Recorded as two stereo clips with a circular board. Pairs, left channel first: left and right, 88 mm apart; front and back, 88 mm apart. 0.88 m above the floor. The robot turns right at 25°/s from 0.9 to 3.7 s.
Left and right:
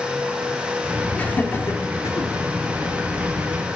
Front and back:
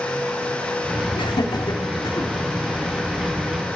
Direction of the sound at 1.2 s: 20° left.